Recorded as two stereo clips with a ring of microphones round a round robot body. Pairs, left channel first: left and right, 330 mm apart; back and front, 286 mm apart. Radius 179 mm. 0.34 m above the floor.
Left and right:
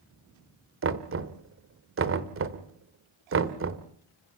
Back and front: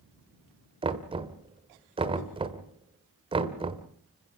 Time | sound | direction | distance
0.8 | knocking | 65° right | 1.3 m